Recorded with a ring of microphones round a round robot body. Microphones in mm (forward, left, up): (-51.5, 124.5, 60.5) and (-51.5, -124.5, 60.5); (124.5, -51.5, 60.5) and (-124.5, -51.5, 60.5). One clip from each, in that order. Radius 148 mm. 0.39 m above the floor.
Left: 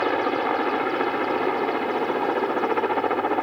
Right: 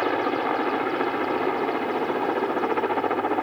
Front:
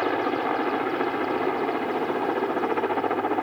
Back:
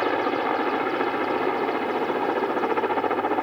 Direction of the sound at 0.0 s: 130° left.